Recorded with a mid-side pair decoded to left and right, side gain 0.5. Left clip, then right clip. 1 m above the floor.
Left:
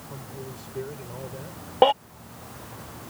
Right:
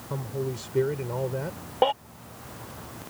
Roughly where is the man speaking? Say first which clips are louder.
Right 9 dB; ahead right.